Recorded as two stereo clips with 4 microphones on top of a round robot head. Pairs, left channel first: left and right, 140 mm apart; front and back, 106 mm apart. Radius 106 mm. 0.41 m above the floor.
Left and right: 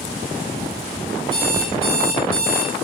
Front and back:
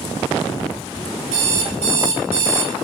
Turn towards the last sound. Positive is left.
turn(degrees=-150)